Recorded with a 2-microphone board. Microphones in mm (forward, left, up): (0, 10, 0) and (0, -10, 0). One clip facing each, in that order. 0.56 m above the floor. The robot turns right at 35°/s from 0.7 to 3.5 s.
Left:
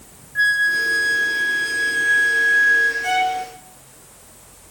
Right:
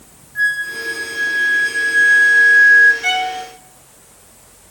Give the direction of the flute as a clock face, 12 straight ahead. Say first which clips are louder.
Left 2 dB; 7 o'clock.